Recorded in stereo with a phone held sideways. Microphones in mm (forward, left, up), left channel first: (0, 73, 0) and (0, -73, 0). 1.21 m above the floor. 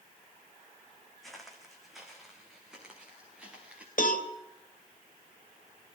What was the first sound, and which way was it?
Footsteps, centre (ahead or behind).